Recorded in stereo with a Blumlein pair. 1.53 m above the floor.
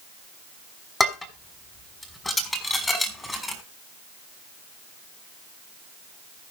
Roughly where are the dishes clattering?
Ahead.